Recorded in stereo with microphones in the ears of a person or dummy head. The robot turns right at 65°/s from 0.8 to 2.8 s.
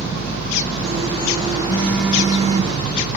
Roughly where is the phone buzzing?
Behind left.